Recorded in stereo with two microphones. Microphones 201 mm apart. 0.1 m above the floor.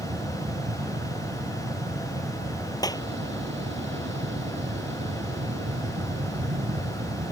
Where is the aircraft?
60° right (ahead or behind).